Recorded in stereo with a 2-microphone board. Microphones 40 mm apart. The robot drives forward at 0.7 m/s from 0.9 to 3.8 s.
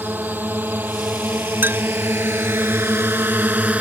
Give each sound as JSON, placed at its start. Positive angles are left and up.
{"t": 0.0, "sound": "a drone", "side_deg": -55}
{"t": 1.6, "sound": "a clink", "side_deg": -65}